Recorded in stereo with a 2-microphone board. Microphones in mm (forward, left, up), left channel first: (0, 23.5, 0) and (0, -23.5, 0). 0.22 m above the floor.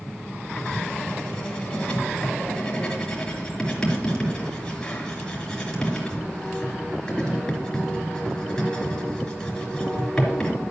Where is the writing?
15° left (ahead or behind), 3.5 m.